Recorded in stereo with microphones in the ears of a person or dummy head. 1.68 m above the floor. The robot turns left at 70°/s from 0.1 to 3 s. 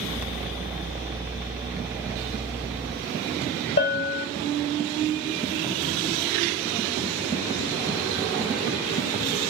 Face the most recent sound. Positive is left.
turn(degrees=30)  # may be behind; listen again after turning